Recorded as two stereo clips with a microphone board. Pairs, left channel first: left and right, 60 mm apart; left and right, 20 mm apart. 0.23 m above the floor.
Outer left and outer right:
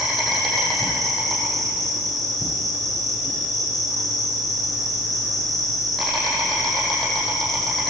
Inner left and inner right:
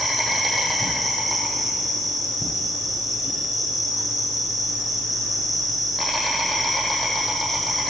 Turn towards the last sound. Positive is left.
turn(degrees=0)  # may be behind; listen again after turning